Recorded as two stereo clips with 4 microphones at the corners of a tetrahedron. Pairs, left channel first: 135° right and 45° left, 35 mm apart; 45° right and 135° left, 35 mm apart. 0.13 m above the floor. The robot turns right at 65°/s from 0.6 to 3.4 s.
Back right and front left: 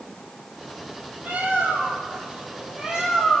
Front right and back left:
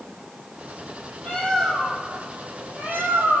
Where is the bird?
10° left, 1.7 m; by 3.4 s 150° left, 1.7 m.